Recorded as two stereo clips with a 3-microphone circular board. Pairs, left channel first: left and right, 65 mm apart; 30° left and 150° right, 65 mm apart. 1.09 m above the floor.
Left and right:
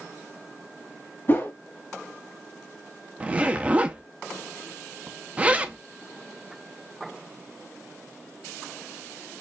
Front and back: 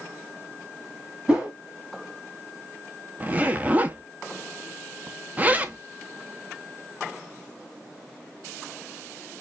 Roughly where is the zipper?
Behind right.